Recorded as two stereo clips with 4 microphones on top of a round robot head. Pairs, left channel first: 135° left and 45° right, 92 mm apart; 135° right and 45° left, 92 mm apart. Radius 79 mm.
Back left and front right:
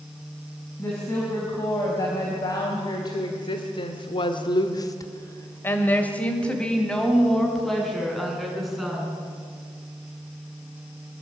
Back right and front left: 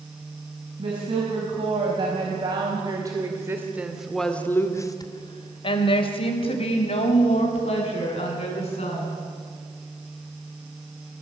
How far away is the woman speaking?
About 5.5 m.